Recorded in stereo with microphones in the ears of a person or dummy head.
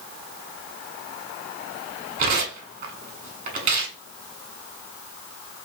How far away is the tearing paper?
About 1.0 m.